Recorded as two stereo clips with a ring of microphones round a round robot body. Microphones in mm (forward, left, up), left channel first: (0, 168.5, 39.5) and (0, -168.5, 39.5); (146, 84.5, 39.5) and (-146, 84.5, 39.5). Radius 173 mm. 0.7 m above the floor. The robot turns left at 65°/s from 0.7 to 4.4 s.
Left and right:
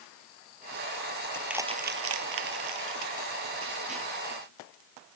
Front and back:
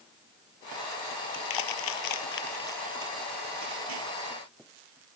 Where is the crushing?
10° left; by 4.1 s 170° right.